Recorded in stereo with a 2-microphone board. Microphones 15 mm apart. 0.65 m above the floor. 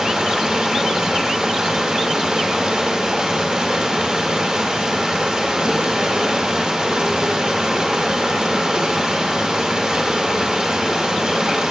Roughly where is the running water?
Right.